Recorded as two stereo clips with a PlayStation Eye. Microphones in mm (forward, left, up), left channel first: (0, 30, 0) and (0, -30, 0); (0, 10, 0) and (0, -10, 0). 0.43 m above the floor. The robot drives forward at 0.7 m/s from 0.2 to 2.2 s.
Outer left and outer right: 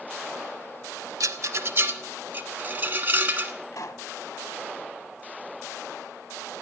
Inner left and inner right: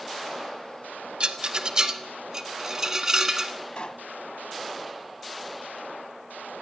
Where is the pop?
75° left (ahead or behind), 0.7 m.